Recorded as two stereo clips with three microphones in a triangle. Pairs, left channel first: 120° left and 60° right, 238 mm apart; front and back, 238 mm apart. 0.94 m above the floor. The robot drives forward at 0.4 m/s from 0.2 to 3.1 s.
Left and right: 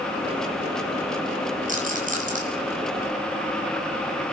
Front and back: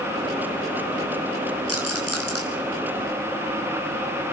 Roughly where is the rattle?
Ahead.